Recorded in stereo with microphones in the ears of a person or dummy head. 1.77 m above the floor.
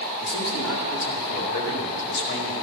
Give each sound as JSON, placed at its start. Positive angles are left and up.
{"t": 0.2, "sound": "a man speaking", "side_deg": 30, "distance_m": 3.0}